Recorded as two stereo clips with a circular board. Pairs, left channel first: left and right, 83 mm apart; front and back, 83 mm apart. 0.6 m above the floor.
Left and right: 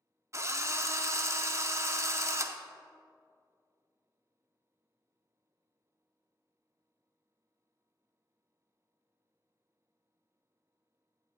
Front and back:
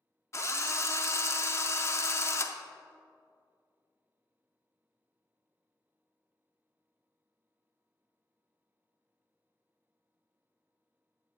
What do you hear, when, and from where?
0.3 s a drill: 45° right, 0.6 m